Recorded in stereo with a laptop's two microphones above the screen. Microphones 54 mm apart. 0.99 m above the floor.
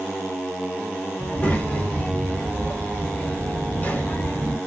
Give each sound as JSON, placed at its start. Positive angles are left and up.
{"t": 1.2, "sound": "a child speaking", "side_deg": 25, "distance_m": 1.5}